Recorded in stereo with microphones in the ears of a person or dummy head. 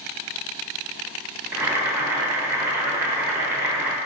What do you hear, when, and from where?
1.5 s boiling: 15° right (ahead or behind), 0.7 m